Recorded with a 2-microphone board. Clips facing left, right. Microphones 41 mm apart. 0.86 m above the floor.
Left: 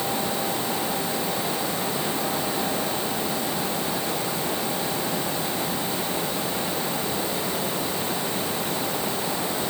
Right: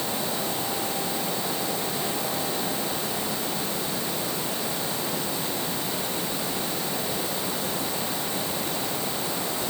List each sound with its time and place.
Only background noise.